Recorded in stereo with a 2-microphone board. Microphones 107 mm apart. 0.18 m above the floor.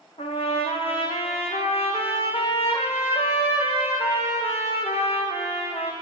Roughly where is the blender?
No blender in this recording.